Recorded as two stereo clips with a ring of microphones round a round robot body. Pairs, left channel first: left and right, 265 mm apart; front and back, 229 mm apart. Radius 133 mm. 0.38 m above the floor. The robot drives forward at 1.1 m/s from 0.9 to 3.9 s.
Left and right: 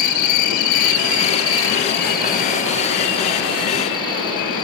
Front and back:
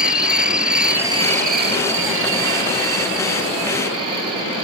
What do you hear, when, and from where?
0.0 s an insect: 95° left, 1.0 m; by 4.6 s 165° left, 3.5 m